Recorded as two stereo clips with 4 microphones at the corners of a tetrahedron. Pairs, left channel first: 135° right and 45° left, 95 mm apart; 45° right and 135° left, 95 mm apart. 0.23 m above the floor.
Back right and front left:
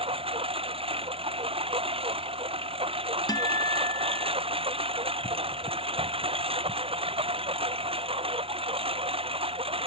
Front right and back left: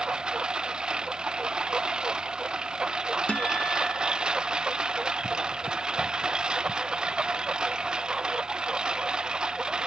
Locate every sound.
0.0 s a lawn mower: 55° left
3.3 s a guitar: 120° right